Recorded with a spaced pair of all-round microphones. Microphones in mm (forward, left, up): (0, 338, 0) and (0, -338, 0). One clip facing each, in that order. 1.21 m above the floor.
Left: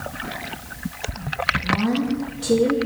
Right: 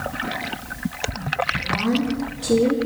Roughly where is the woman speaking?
Left.